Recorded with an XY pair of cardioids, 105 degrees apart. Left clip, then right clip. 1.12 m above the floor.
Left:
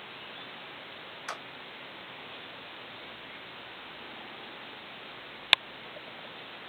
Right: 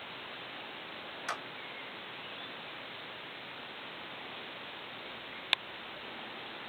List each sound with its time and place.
1.3 s a clap: 10° left, 1.2 m